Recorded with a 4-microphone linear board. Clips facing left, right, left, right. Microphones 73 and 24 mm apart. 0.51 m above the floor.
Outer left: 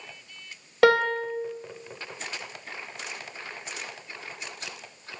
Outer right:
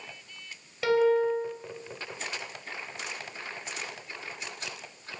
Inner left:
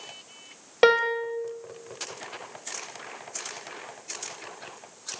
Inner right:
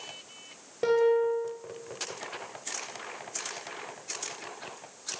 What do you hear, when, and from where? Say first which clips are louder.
0.8 s a piano: outer left 2 dB, inner left 3 dB; 65° left (ahead or behind), 2.5 m